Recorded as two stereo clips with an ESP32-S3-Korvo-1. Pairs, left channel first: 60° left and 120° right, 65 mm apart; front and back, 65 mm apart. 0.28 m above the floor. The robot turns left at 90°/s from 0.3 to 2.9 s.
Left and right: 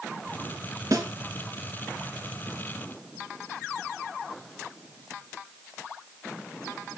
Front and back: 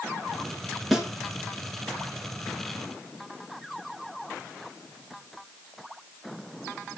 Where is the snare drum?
90° right, 3.5 m; by 1.1 s 105° right, 3.5 m.